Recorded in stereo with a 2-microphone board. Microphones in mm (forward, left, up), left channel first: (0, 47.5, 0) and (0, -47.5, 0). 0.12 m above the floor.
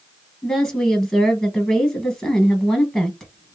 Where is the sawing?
I don't hear sawing.